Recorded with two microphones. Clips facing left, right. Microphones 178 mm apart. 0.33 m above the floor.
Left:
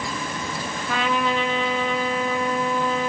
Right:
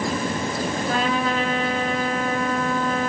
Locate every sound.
0.9 s a trumpet: 40° right (ahead or behind), 2 m